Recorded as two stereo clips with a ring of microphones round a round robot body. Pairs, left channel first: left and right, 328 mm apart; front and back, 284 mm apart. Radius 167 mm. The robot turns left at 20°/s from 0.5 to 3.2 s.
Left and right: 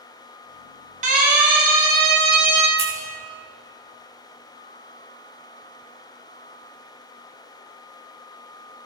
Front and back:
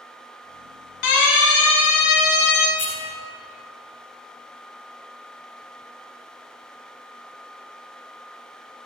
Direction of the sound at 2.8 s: 80° right.